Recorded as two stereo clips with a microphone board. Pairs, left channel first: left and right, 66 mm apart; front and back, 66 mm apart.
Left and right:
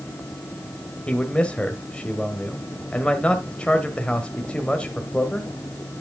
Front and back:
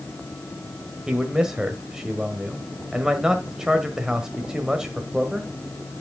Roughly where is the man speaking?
Behind left.